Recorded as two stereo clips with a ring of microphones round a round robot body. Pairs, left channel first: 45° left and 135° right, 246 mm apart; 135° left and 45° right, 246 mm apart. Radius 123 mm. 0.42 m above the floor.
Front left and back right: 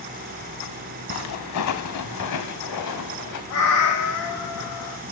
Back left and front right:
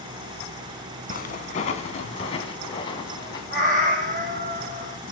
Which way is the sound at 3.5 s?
15° left.